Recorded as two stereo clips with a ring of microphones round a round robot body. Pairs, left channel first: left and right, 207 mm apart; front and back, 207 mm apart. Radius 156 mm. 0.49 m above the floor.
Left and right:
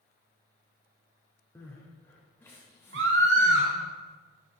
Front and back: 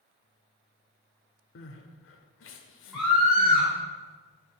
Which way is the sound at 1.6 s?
10° left.